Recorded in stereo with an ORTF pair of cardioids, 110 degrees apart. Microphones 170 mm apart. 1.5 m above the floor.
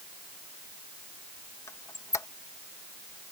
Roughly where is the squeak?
Ahead.